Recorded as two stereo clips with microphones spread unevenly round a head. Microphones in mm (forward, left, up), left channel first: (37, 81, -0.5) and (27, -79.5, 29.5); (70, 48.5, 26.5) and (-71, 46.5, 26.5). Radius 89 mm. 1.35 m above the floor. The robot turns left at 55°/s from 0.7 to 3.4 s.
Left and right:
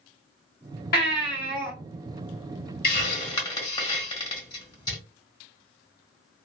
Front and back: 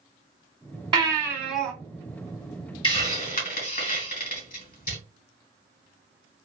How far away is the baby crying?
About 1.7 m.